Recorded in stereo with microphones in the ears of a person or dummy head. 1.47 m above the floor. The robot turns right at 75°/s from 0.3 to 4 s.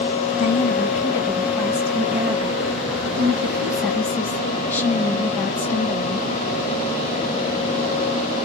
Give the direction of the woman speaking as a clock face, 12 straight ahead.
9 o'clock.